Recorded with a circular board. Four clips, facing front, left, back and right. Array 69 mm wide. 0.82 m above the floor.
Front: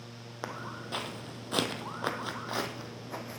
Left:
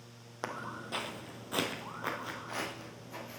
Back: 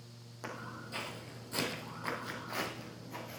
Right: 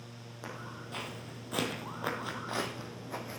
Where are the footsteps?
40° left, 1.6 m; by 3.4 s 40° right, 1.9 m.